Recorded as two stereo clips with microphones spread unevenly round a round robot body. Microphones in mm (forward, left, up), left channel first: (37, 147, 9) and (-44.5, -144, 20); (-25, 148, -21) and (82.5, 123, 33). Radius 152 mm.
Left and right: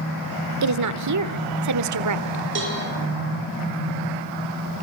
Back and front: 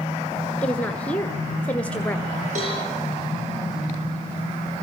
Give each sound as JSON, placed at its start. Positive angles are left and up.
{"t": 0.6, "sound": "a woman speaking", "azimuth_deg": -130, "distance_m": 1.6}
{"t": 2.5, "sound": "a cowbell", "azimuth_deg": -50, "distance_m": 7.5}